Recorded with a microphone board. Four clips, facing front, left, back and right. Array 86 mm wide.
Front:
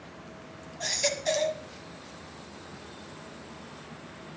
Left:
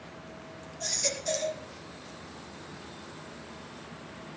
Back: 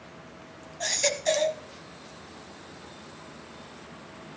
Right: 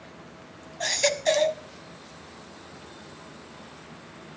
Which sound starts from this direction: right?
A baby crying, at 0.8 s.